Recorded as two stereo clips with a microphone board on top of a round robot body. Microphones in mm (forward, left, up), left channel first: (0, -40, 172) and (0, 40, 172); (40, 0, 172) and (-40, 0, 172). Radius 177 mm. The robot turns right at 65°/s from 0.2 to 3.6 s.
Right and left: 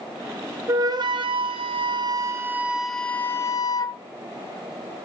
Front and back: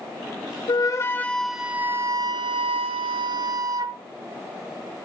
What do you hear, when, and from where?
0.7 s a flute: 35° left, 0.9 m; by 4.0 s 135° right, 0.9 m